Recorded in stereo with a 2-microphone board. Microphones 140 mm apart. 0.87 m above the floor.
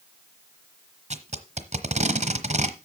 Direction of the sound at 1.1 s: 50° right (ahead or behind).